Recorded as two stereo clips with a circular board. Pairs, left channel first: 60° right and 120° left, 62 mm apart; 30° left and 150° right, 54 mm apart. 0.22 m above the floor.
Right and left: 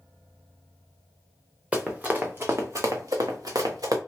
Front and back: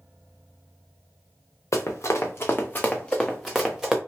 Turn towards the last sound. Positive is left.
turn(degrees=130)